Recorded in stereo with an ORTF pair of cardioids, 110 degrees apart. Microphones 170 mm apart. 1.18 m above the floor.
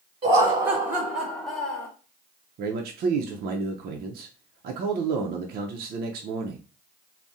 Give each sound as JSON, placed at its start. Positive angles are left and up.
{"t": 0.2, "sound": "laughter", "azimuth_deg": -35, "distance_m": 1.1}
{"t": 2.6, "sound": "a man speaking", "azimuth_deg": -65, "distance_m": 0.6}